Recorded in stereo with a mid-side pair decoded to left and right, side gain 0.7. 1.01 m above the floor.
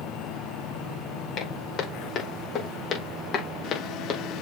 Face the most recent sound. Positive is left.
turn(degrees=40)